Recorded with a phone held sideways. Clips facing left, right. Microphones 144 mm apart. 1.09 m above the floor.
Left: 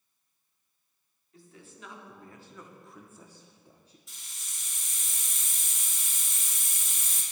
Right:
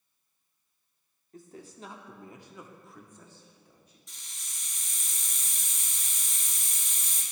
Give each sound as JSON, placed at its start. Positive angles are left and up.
{"t": 1.3, "sound": "a man speaking", "side_deg": -45, "distance_m": 1.1}
{"t": 4.1, "sound": "a hiss", "side_deg": 5, "distance_m": 2.5}